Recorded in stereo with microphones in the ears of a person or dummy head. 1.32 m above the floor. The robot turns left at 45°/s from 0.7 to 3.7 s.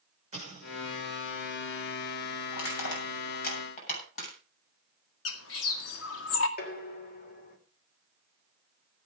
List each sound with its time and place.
0.3 s an explosion: 35° right (ahead or behind), 6 m; by 1.0 s 20° right (ahead or behind), 6 m
2.5 s crushing: 80° left, 7 m; by 4.3 s 45° left (ahead or behind), 7 m
5.2 s a bird: 80° left, 1.9 m
6.6 s dishes clattering: 50° left (ahead or behind), 2.5 m